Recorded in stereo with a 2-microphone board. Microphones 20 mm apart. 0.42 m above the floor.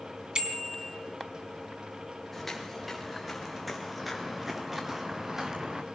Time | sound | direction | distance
0.3 | a bicycle bell | 40° right (ahead or behind) | 2.5 m
2.3 | footsteps | 5° left (ahead or behind) | 5 m